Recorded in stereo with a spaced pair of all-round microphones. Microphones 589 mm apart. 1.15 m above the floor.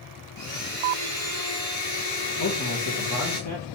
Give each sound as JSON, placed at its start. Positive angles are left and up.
{"t": 0.4, "sound": "a blender", "side_deg": 65, "distance_m": 1.9}
{"t": 2.4, "sound": "a man speaking", "side_deg": 30, "distance_m": 1.0}